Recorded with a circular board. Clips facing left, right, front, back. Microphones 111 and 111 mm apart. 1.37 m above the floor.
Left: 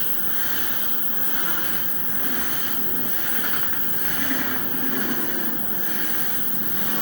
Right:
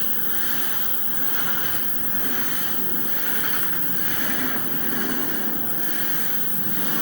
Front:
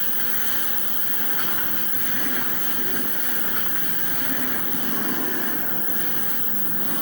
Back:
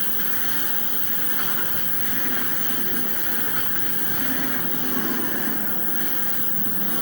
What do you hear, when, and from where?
0.0 s an insect: 120° right, 0.9 m